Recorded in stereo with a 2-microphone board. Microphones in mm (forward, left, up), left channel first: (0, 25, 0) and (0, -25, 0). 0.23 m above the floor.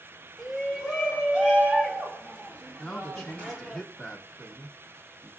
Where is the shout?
5° right (ahead or behind), 1.2 m; by 3.8 s 35° right (ahead or behind), 3.5 m.